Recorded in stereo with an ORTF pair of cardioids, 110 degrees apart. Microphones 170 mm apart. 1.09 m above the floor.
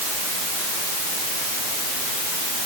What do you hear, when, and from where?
Only background noise.